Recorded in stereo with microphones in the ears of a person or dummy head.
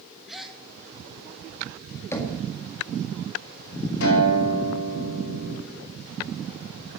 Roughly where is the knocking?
Centre.